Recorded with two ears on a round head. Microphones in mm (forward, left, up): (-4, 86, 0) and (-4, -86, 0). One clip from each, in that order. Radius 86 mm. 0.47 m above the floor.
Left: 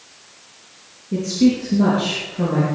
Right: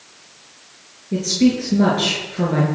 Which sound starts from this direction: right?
A woman speaking, at 1.1 s.